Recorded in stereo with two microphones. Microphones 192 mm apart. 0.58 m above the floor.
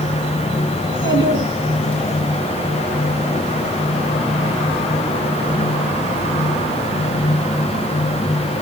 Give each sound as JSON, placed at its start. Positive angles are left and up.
{"t": 0.8, "sound": "a child speaking", "side_deg": 85, "distance_m": 4.5}